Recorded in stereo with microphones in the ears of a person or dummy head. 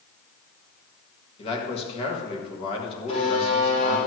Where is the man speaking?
35° left (ahead or behind), 2 m.